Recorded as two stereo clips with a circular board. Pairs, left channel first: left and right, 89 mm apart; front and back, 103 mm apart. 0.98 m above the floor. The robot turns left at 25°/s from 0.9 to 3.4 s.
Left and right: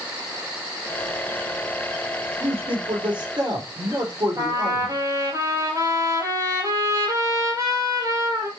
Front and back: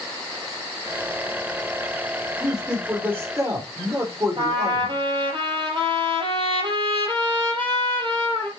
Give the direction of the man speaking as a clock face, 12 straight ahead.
3 o'clock.